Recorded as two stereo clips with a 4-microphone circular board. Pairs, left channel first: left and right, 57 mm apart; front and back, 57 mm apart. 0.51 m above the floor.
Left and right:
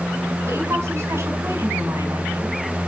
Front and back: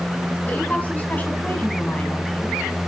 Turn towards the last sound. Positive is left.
turn(degrees=-65)